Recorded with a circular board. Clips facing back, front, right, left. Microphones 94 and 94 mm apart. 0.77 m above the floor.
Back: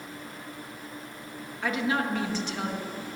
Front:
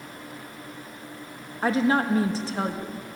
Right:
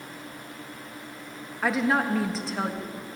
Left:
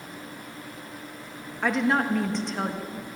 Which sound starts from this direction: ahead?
A woman speaking, at 1.6 s.